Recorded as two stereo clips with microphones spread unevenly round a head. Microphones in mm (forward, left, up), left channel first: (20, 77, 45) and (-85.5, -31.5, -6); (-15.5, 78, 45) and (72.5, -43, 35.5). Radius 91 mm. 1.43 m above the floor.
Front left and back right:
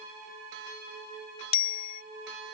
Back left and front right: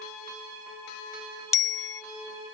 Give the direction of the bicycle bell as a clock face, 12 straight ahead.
10 o'clock.